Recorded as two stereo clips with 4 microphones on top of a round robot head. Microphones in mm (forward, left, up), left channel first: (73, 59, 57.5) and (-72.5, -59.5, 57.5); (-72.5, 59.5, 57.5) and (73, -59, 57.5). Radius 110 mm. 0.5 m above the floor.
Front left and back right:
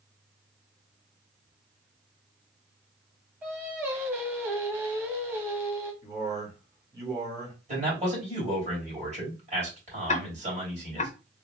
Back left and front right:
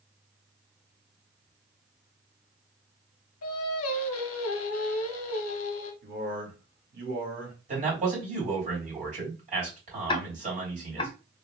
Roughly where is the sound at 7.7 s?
Right.